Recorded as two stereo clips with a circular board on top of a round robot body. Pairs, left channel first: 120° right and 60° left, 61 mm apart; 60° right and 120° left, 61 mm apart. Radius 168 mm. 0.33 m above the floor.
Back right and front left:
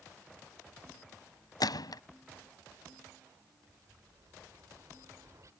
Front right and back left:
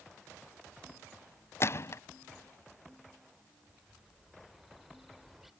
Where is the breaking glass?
No breaking glass in this recording.